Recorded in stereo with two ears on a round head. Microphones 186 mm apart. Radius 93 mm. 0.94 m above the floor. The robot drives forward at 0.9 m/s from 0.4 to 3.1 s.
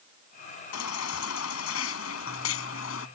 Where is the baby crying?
90° left; by 3.1 s 75° left (ahead or behind).